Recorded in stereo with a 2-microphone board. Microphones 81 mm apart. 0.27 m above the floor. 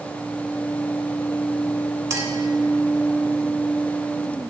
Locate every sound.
2.1 s a clink: 40° right (ahead or behind), 1.5 m